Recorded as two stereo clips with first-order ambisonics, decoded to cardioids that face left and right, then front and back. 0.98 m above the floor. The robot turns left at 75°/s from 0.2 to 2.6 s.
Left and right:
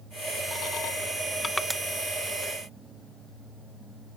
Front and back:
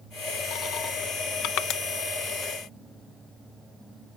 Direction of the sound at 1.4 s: 15° left.